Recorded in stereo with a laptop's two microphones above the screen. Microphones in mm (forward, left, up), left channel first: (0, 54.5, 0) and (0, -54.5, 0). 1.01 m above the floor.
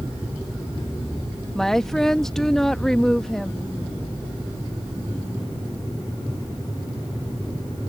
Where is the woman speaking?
5° left (ahead or behind).